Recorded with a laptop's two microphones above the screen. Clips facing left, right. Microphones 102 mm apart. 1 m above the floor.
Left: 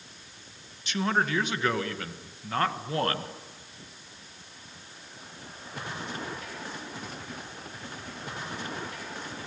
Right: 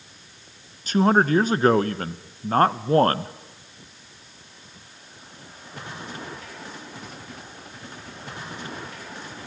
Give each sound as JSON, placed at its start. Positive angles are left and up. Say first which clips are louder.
{"t": 0.9, "sound": "a man speaking", "louder": "right 9 dB", "side_deg": -40, "distance_m": 0.9}